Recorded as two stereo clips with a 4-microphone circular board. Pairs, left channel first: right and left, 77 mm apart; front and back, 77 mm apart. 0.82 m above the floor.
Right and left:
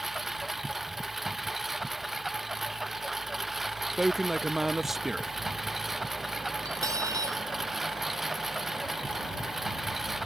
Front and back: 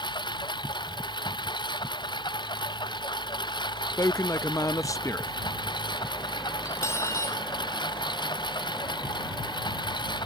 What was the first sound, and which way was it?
A lawn mower, 5° left.